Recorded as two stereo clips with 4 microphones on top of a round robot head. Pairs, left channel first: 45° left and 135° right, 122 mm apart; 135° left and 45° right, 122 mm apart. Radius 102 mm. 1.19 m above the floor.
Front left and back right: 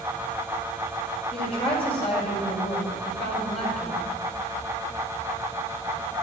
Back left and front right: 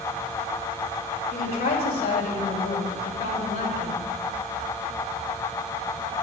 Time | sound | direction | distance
1.3 | a woman speaking | 90° left | 6.5 m